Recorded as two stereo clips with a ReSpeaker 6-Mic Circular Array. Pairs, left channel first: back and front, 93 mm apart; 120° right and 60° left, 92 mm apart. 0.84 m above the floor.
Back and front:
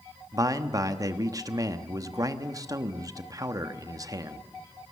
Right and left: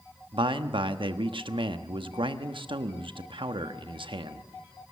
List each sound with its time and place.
0.3 s a man speaking: 45° left, 1.1 m